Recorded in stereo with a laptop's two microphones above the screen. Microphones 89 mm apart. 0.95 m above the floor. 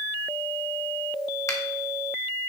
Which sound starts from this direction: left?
A finger snap, at 1.5 s.